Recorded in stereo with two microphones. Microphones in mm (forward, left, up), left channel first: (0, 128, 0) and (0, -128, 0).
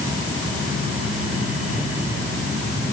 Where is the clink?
I don't hear a clink.